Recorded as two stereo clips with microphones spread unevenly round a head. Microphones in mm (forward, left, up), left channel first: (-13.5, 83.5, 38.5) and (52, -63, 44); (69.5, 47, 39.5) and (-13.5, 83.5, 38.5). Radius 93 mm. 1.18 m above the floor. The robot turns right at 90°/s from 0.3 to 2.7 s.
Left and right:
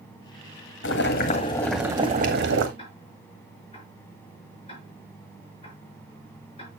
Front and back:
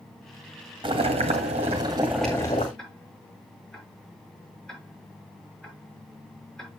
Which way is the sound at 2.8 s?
60° left.